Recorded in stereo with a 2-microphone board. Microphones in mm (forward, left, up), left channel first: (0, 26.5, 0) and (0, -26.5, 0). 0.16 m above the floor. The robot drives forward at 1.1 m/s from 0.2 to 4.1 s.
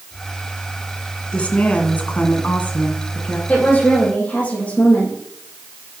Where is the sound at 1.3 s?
25° left (ahead or behind), 1.8 m.